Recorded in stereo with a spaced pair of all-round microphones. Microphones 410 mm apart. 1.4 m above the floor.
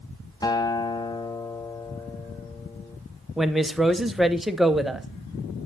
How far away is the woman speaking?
About 0.6 m.